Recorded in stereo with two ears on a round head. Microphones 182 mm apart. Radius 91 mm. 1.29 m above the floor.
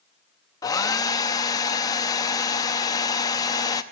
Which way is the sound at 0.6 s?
20° left (ahead or behind).